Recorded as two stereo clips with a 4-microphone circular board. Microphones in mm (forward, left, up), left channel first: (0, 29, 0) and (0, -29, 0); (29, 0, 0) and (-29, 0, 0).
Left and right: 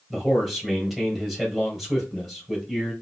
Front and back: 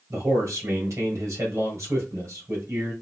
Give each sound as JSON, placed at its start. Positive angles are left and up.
{"t": 0.1, "sound": "a man speaking", "azimuth_deg": -175, "distance_m": 2.5}